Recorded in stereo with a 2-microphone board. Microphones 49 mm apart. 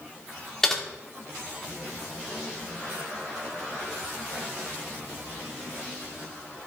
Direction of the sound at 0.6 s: 10° left (ahead or behind).